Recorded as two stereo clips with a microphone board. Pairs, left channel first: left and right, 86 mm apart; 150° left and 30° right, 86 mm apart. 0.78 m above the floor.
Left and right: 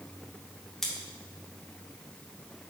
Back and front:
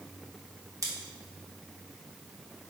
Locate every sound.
0.8 s scissors: 5° left, 1.0 m